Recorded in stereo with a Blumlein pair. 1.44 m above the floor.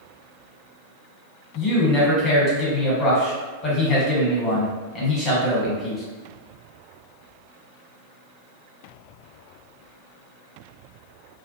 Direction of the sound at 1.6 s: 25° left.